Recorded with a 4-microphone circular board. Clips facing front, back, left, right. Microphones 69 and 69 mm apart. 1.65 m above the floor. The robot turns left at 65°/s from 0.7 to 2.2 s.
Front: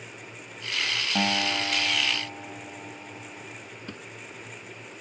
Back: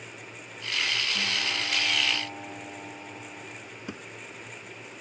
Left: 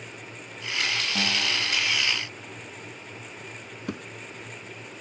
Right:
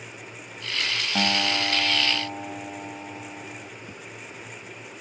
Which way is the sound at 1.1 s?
30° right.